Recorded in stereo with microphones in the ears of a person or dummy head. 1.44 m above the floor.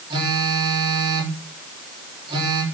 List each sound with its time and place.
0.1 s a phone buzzing: 25° right (ahead or behind), 3.5 m